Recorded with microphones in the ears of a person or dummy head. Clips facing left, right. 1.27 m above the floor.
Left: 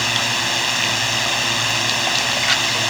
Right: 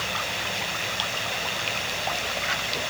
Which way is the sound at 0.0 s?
65° left (ahead or behind).